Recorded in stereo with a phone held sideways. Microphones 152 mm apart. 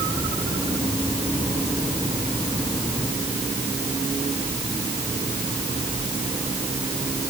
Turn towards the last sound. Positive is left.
No sound to turn to.